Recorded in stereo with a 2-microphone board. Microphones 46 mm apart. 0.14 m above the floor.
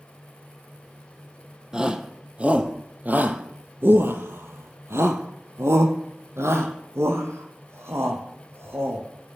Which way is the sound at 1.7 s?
15° right (ahead or behind).